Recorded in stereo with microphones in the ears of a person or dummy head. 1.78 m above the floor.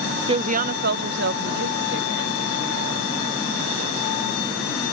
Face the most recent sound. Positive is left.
turn(degrees=-65)  # may be behind; listen again after turning